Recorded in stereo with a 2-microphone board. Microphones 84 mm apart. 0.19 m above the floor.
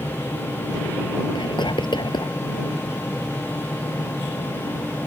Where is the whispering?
65° left (ahead or behind).